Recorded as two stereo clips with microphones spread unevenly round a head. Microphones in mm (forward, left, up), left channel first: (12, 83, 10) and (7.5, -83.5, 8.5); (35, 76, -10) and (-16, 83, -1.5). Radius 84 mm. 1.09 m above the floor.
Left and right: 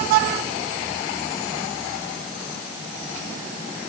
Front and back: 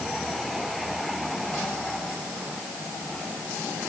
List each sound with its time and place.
Only background noise.